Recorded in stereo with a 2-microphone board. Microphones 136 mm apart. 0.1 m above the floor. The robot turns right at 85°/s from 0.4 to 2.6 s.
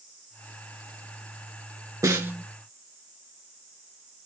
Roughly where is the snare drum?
Right.